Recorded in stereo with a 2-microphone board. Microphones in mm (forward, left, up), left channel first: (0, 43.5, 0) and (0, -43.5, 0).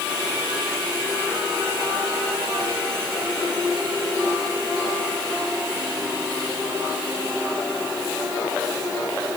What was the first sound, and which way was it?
Only background noise.